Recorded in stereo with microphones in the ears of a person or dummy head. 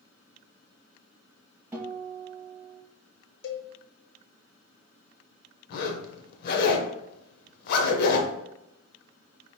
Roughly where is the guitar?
Centre.